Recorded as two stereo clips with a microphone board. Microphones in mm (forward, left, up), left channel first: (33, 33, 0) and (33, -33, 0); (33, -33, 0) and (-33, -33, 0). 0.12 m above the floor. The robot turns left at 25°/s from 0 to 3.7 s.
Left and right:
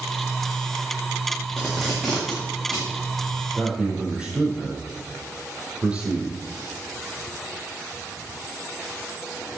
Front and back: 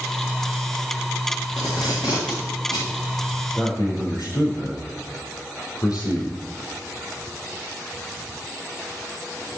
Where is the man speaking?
15° right, 4.5 m; by 6.4 s 20° right, 4.5 m.